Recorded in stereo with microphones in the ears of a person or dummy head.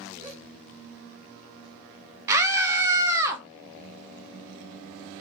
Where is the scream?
10° right (ahead or behind), 0.9 m.